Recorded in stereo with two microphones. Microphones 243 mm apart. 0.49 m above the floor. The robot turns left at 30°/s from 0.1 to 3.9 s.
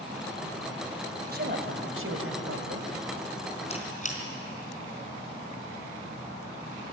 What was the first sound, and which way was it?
A woman speaking, 40° right.